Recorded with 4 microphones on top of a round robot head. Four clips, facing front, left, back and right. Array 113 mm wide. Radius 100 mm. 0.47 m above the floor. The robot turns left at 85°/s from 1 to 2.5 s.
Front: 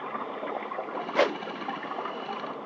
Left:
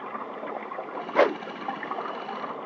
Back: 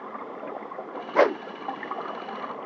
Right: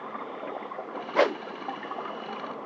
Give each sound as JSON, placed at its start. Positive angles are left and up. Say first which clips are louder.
{"t": 1.1, "sound": "a whoosh", "louder": "left 2 dB, back 5 dB", "azimuth_deg": 160}